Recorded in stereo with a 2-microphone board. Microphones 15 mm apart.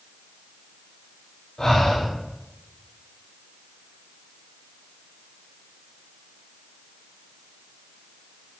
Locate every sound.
1.6 s breathing: 30° left (ahead or behind), 1.3 m